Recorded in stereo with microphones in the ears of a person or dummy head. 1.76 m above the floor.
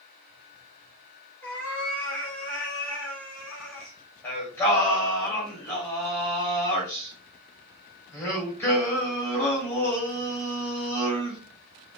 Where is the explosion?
I don't hear an explosion.